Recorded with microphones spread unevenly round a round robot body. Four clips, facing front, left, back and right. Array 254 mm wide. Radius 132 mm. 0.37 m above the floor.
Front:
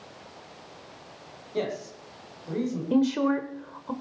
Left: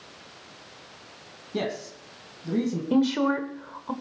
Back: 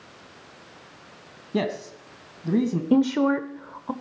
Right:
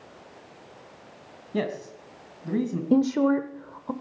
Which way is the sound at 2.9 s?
115° right.